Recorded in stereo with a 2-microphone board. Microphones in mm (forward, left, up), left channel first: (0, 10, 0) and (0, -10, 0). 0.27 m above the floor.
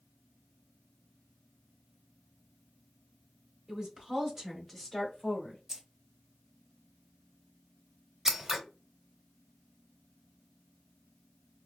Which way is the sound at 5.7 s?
20° right (ahead or behind).